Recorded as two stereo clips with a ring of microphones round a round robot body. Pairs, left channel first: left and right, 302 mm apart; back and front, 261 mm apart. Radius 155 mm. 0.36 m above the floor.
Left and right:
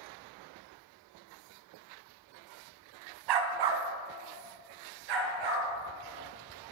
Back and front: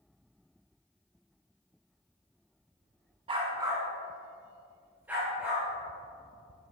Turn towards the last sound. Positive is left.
turn(degrees=-85)